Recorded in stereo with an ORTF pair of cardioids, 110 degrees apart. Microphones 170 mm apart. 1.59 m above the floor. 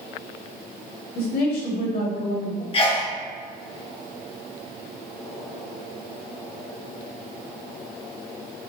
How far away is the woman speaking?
About 1.9 m.